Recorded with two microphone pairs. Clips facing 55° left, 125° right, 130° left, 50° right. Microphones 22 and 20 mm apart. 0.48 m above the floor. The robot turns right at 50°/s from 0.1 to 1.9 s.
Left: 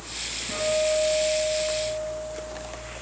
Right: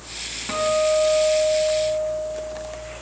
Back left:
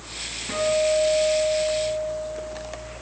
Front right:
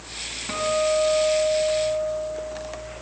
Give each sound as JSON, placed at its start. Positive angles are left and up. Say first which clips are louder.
{"t": 0.5, "sound": "a guitar", "louder": "right 4 dB, back left 1 dB", "azimuth_deg": -110, "distance_m": 6.0}